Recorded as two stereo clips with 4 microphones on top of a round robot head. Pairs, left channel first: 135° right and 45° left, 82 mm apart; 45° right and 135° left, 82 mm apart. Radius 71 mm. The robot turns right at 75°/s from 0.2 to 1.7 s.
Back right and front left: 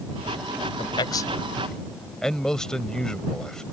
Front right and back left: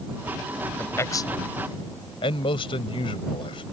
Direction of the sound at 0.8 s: 120° right.